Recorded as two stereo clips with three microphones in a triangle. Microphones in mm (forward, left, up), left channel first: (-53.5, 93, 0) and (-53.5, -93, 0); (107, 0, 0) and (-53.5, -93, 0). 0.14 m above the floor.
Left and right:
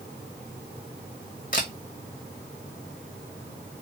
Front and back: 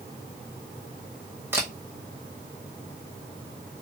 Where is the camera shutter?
135° left, 1.2 m.